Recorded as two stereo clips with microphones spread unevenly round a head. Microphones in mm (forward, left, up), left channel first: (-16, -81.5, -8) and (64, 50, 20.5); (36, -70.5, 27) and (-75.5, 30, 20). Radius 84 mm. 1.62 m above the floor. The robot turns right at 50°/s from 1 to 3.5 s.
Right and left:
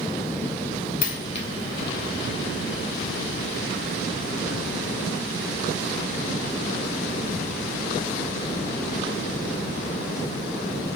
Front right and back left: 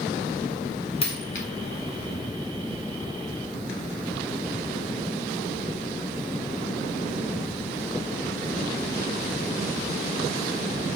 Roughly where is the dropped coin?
Right.